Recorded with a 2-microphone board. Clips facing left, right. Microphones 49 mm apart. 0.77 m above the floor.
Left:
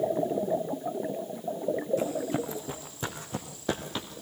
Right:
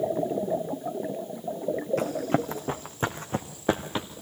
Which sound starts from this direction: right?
Running footsteps, at 2.0 s.